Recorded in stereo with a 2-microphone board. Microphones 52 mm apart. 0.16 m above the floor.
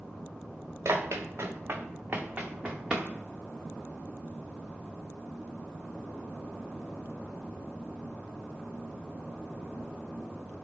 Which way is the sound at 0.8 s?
80° right.